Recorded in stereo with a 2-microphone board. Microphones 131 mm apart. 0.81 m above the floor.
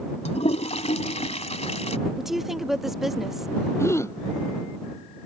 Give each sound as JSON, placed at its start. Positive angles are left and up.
{"t": 0.2, "sound": "a toilet flushing", "side_deg": 55}
{"t": 2.2, "sound": "a woman speaking", "side_deg": 0}
{"t": 3.8, "sound": "a gasp", "side_deg": 20}